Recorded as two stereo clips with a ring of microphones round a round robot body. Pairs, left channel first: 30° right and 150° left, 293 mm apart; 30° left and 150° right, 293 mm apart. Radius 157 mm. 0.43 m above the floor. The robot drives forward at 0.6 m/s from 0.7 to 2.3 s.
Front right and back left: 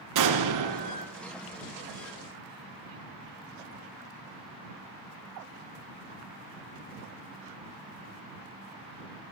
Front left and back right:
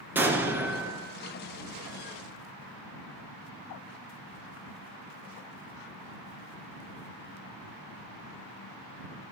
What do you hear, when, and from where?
0.1 s an explosion: 125° left, 3 m; by 1.1 s 130° left, 3 m